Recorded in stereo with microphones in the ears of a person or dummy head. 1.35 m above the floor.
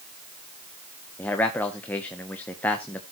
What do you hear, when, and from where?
1.2 s a man speaking: 10° left (ahead or behind), 1.1 m